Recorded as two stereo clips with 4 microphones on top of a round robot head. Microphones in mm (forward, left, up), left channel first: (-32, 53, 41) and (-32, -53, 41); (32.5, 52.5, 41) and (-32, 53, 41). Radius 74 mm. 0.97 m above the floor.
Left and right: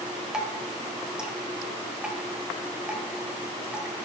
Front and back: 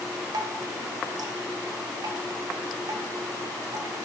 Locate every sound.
0.3 s dripping: 170° right, 1.0 m